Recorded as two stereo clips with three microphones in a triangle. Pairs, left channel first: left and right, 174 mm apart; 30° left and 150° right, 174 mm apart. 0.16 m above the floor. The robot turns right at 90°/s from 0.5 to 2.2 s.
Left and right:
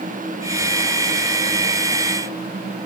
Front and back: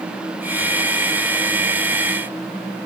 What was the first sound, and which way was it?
Only background noise.